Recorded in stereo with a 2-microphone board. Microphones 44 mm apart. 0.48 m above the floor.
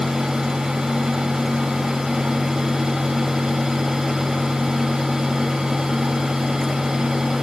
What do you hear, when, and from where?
Only background noise.